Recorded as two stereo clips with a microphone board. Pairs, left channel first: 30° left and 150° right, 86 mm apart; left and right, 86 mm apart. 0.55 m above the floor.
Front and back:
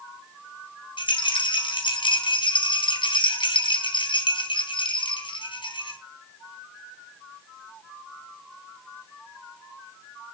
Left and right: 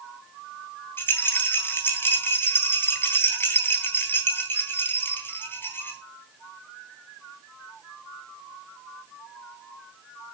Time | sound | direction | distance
1.0 | a rattle | 25° left | 3.5 m